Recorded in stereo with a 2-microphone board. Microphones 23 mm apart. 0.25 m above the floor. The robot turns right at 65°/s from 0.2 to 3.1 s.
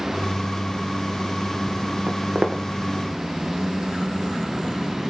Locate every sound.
2.1 s footsteps: 85° right, 1.8 m; by 2.6 s 55° right (ahead or behind), 1.8 m